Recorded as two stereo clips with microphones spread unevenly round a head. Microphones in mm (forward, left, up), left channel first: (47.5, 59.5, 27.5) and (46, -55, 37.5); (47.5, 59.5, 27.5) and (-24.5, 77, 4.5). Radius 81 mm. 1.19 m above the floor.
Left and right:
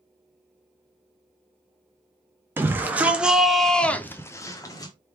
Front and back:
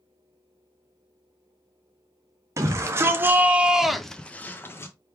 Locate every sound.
2.6 s a shout: 165° right, 1.2 m; by 4.9 s 50° left, 0.9 m